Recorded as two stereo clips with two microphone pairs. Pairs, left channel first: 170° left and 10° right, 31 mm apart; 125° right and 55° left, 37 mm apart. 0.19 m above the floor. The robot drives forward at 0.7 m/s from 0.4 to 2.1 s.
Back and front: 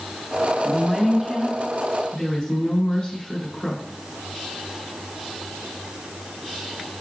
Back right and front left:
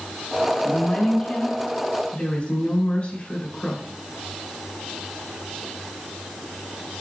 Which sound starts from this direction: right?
A woman speaking, at 0.7 s.